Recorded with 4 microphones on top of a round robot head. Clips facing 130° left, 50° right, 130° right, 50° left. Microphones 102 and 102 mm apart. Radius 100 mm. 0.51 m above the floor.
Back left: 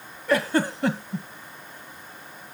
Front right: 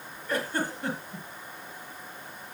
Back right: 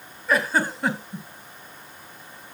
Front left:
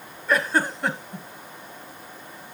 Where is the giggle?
145° left, 1.6 m.